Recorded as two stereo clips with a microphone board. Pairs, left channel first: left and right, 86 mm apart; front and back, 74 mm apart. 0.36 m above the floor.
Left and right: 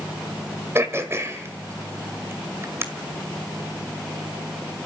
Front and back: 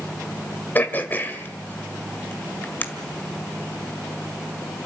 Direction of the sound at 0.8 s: 50° right.